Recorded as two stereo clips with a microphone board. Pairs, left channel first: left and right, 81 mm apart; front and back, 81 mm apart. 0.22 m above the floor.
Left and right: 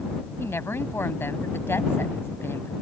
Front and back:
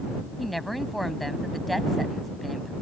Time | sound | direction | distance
0.4 | a woman speaking | 90° left | ?